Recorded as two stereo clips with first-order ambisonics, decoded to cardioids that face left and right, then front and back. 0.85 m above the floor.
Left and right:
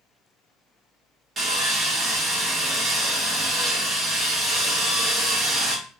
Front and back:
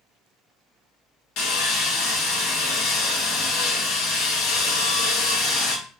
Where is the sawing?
25° right, 0.8 m.